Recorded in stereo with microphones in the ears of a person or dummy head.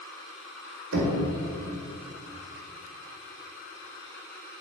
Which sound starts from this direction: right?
Knocking, at 0.9 s.